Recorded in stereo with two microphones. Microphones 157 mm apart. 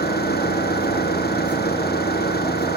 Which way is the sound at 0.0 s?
85° left.